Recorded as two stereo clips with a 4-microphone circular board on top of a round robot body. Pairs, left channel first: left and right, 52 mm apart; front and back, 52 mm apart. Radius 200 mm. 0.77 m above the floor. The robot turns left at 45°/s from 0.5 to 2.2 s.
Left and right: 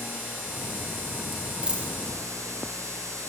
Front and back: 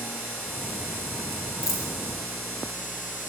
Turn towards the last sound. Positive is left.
turn(degrees=-40)